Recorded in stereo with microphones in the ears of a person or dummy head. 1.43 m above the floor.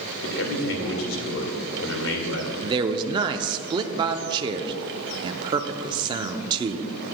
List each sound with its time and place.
0.2 s a man speaking: 80° left, 2 m
2.6 s a man speaking: 30° right (ahead or behind), 0.5 m